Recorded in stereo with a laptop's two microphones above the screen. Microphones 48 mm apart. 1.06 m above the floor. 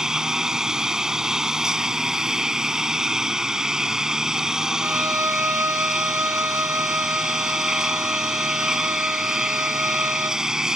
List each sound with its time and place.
0.0 s a lawn mower: 10° right (ahead or behind)
4.8 s a violin: 70° right (ahead or behind)